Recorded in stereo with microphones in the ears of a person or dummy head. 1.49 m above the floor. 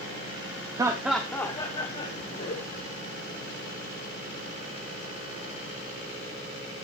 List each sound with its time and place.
0.8 s laughter: 20° right (ahead or behind), 0.9 m; by 2.9 s 50° left (ahead or behind), 1.8 m